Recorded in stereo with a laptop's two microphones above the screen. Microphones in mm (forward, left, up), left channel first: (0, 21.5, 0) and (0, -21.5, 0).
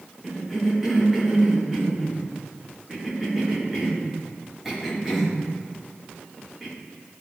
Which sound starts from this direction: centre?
A cough, at 0.2 s.